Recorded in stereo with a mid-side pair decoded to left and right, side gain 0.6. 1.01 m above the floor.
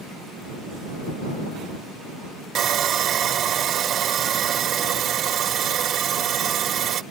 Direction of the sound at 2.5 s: 50° right.